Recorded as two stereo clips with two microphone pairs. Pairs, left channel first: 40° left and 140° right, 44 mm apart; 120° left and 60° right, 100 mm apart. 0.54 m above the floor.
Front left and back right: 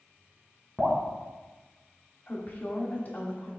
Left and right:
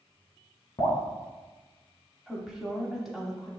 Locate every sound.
0.8 s dripping: 140° left, 1.1 m
2.3 s a woman speaking: 20° left, 0.9 m